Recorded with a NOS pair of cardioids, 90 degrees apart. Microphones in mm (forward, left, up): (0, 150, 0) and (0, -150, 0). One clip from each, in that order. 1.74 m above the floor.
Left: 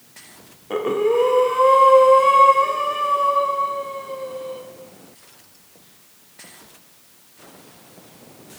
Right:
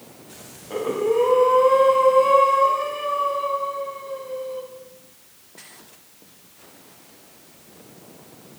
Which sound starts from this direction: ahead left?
Breathing, at 0.7 s.